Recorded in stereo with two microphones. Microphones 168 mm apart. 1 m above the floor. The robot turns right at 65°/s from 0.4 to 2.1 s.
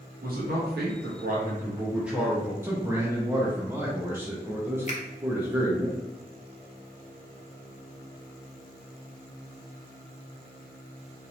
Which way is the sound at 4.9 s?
45° left (ahead or behind).